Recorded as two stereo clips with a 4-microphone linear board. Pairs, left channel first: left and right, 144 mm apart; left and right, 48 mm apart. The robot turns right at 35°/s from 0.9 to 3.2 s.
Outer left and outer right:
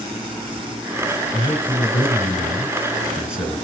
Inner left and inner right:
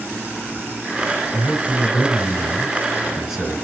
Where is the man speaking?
125° left, 1.3 m; by 3.6 s 170° right, 1.3 m.